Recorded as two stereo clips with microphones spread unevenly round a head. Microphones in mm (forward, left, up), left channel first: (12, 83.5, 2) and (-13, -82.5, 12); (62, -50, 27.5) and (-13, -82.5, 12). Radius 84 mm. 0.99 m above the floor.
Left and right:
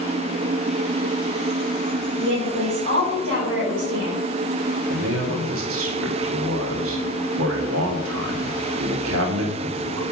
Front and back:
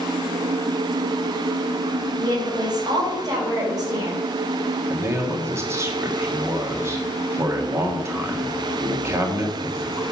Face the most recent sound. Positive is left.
turn(degrees=-100)